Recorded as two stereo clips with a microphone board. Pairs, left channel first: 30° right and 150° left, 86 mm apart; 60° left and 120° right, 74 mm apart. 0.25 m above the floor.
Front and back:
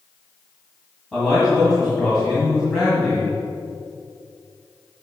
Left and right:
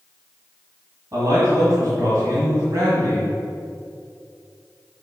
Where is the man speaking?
120° right, 1.9 m.